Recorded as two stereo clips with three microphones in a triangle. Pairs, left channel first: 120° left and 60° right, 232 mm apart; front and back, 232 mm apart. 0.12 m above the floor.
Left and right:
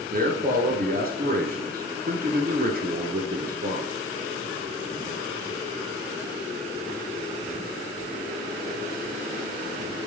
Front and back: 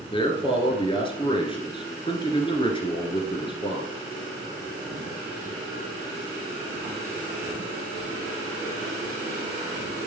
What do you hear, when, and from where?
0.1 s a man speaking: 55° right, 1.4 m